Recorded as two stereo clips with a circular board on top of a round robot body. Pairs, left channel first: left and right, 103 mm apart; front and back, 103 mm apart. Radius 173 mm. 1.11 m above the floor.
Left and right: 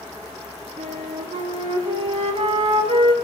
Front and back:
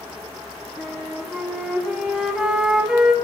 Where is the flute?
100° right, 2.5 m.